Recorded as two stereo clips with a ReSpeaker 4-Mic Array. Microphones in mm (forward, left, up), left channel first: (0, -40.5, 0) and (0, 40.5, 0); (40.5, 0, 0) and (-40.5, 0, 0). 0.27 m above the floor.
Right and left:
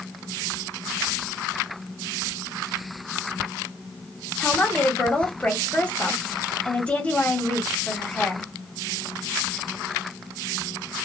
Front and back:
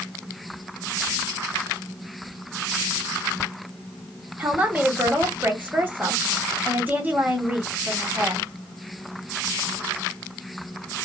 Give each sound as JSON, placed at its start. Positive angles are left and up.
{"t": 4.4, "sound": "a woman speaking", "azimuth_deg": -140, "distance_m": 1.0}